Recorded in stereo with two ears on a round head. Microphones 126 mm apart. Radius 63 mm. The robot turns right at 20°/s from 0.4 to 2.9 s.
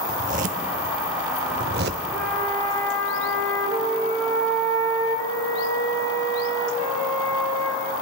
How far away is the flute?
About 1.9 m.